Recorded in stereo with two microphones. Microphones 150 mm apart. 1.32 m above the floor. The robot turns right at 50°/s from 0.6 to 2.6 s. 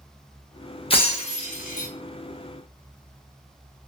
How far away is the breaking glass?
About 0.7 m.